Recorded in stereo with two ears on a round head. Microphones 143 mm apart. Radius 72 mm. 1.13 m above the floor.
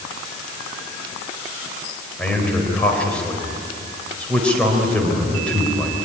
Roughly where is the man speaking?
Centre.